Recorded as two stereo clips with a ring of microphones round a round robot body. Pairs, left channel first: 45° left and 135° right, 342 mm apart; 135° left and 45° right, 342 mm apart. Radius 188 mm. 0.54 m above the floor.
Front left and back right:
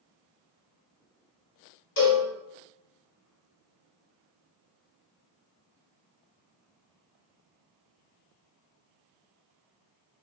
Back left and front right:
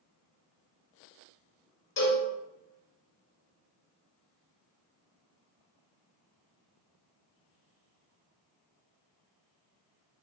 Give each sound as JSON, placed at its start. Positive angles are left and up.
{"t": 2.0, "sound": "a cowbell", "azimuth_deg": 80, "distance_m": 1.2}